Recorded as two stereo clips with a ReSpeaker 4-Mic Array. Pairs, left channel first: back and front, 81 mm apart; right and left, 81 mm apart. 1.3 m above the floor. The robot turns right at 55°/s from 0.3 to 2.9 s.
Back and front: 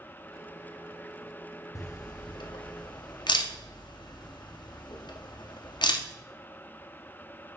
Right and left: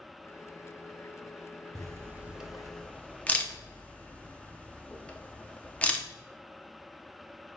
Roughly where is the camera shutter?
Behind left.